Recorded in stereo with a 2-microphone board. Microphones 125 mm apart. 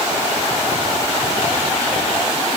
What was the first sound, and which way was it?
Only background noise.